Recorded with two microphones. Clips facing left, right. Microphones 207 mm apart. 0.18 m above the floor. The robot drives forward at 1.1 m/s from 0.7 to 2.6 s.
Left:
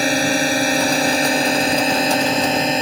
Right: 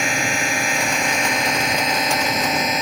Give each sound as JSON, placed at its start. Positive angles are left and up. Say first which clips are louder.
{"t": 0.0, "sound": "a drone", "louder": "left 7 dB", "side_deg": 35}